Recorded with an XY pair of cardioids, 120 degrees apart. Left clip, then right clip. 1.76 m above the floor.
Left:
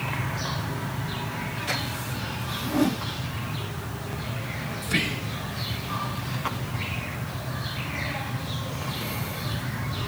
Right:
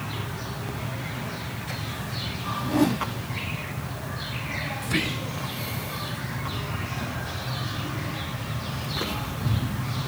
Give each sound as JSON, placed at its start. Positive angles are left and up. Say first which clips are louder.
{"t": 2.6, "sound": "a whoosh", "louder": "right 2 dB", "azimuth_deg": -30, "distance_m": 1.7}
{"t": 4.8, "sound": "whispering", "louder": "left 3 dB", "azimuth_deg": 5, "distance_m": 0.5}